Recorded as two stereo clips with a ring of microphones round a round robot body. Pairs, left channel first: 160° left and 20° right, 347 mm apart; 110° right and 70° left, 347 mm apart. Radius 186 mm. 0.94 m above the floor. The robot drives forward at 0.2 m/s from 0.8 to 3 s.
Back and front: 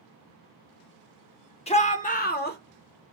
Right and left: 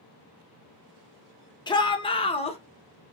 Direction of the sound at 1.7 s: 170° right.